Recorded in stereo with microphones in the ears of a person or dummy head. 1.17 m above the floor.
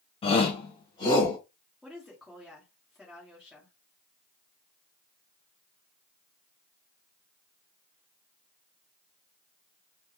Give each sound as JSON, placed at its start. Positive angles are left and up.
{"t": 0.2, "sound": "a shout", "side_deg": 30, "distance_m": 1.2}
{"t": 1.8, "sound": "a woman speaking", "side_deg": 0, "distance_m": 1.2}